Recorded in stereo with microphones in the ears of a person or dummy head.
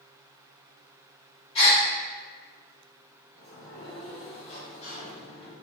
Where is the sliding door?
40° left (ahead or behind), 1.3 m.